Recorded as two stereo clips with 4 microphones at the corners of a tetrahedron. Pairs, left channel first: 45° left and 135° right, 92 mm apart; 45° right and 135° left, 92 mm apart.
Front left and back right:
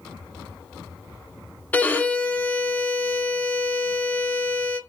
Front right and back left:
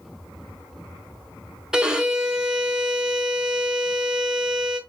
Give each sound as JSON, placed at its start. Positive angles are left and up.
{"t": 1.7, "sound": "a violin", "azimuth_deg": 65, "distance_m": 0.7}